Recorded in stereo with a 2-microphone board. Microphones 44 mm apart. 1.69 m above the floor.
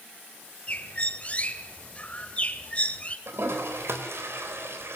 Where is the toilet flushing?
65° right (ahead or behind), 3.5 m.